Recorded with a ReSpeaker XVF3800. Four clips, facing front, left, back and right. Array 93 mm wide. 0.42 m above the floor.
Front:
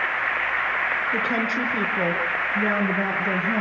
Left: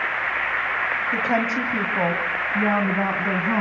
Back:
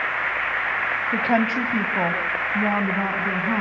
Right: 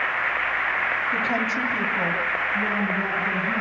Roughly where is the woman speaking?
Behind left.